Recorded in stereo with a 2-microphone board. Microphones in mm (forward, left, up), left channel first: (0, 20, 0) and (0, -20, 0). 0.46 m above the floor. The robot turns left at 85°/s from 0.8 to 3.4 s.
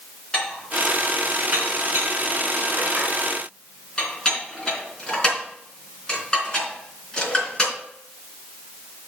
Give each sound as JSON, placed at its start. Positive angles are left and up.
{"t": 0.3, "sound": "dishes clattering", "side_deg": 20, "distance_m": 3.5}